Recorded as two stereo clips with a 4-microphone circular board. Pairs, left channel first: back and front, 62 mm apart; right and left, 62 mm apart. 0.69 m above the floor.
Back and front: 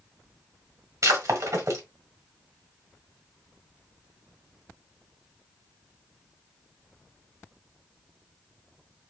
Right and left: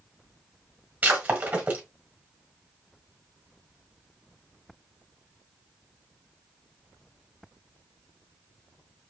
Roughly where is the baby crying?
No baby crying in this recording.